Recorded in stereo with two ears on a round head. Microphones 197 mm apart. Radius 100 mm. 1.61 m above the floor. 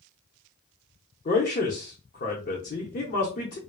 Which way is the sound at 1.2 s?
35° left (ahead or behind).